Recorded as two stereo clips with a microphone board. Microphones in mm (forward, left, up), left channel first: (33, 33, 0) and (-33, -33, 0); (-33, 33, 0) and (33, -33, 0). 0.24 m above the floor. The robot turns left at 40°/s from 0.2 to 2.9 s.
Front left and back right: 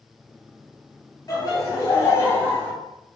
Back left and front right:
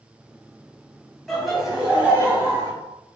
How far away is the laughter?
About 1.1 m.